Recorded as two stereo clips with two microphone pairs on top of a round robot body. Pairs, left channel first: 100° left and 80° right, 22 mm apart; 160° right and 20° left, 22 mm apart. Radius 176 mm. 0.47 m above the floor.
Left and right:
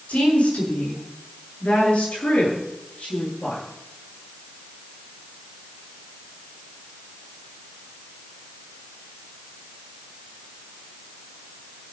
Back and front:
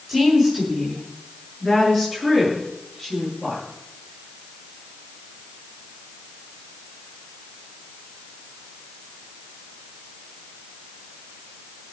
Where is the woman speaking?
115° left, 7 m; by 3.6 s 130° left, 10.5 m.